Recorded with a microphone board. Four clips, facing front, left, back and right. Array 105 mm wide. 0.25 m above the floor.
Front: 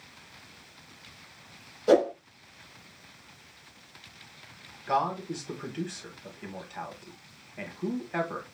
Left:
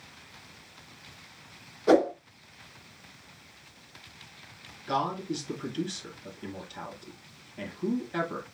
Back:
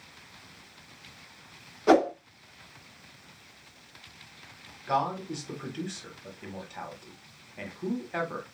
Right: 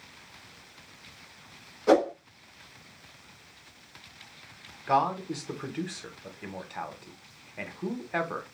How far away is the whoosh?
About 1.8 m.